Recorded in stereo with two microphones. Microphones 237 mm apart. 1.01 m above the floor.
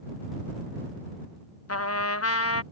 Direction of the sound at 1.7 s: 80° left.